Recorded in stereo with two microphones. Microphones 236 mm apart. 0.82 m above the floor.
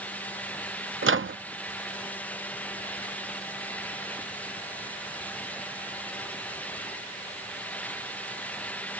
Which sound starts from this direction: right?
A microwave, at 1.0 s.